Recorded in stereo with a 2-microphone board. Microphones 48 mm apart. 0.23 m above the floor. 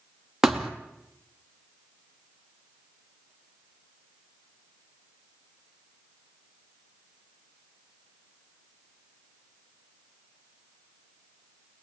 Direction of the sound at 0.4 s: 10° right (ahead or behind).